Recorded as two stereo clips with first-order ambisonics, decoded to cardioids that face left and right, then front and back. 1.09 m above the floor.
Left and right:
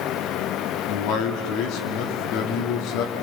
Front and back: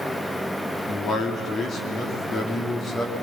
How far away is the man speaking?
About 2.5 m.